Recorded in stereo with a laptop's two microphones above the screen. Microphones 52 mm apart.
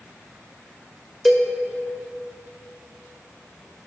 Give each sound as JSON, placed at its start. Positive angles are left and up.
{"t": 1.2, "sound": "a cowbell", "side_deg": 0, "distance_m": 1.3}